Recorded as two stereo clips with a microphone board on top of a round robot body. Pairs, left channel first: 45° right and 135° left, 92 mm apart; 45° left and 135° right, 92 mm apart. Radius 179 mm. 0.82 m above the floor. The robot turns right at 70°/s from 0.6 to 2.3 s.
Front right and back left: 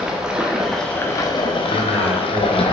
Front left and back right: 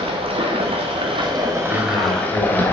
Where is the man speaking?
40° left, 2.5 m; by 2.6 s 85° left, 2.5 m.